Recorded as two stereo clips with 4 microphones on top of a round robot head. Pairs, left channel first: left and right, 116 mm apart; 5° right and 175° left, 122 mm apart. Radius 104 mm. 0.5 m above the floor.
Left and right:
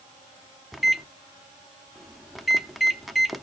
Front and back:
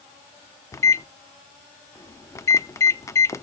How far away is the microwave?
About 0.5 m.